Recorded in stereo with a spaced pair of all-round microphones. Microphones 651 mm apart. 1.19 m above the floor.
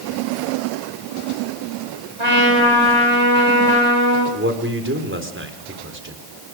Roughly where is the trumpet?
Right.